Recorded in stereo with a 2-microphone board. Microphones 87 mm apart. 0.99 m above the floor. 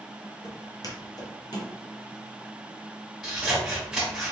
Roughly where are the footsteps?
Left.